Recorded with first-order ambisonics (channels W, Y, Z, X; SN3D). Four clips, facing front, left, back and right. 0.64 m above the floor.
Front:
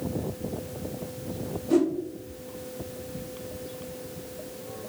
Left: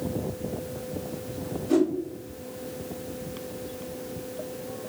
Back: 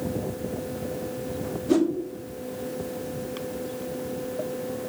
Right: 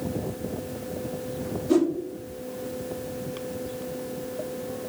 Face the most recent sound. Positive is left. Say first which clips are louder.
# right 1 dB, back 1 dB
turn(degrees=-165)